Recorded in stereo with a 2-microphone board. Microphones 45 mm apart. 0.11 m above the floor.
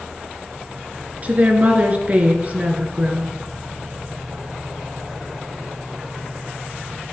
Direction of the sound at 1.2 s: 35° right (ahead or behind).